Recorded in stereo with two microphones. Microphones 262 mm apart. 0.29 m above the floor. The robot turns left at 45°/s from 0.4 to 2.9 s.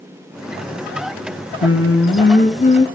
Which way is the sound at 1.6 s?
75° left.